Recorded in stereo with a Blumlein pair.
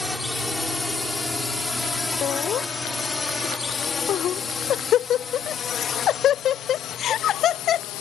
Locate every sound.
0.0 s a drone: 5° left; by 8.0 s 40° left
2.2 s laughter: 30° left